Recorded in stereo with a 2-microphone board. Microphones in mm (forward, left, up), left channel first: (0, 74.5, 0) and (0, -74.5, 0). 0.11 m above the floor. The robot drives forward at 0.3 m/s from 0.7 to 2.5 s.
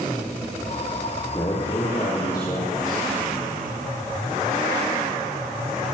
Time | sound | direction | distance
1.3 | a man speaking | 25° left (ahead or behind) | 4 m